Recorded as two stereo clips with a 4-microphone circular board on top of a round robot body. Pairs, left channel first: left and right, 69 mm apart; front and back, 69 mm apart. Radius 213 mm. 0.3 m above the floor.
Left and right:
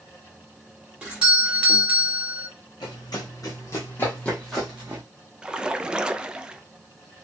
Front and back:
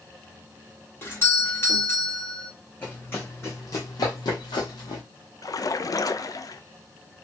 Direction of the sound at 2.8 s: 65° left.